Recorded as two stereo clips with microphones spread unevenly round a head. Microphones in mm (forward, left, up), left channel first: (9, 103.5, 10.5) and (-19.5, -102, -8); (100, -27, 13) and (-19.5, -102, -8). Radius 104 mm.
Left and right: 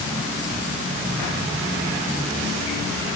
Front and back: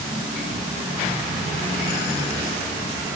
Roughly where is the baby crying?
I don't hear a baby crying.